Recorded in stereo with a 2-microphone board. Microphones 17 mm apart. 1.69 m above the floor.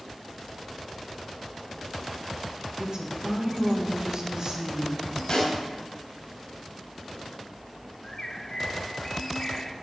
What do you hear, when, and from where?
2.8 s a woman speaking: 35° right (ahead or behind), 2 m
5.3 s a snare drum: 35° left (ahead or behind), 3.5 m
8.0 s a bird: 25° left (ahead or behind), 0.7 m